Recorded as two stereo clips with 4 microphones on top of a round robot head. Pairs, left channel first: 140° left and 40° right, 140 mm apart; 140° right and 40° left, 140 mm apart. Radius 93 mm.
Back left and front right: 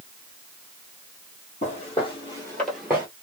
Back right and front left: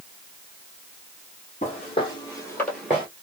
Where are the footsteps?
175° left, 1.8 m; by 3.1 s 15° right, 1.2 m.